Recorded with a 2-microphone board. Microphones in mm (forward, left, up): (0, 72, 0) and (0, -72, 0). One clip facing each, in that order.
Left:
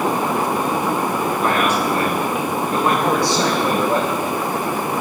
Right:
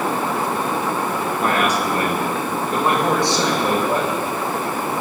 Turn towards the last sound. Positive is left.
turn(degrees=-15)  # may be behind; listen again after turning